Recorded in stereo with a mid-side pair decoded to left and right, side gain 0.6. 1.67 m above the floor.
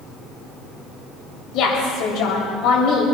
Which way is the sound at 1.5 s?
65° left.